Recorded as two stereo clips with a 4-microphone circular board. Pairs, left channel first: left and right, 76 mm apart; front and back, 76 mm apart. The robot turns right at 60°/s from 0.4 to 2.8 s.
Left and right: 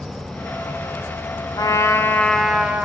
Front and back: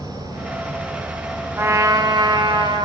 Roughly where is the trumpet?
Behind left.